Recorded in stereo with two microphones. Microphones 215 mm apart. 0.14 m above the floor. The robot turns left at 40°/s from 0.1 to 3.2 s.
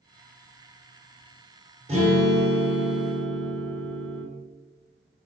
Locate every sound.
1.9 s a guitar: 30° right, 1.7 m; by 4.2 s 80° right, 1.7 m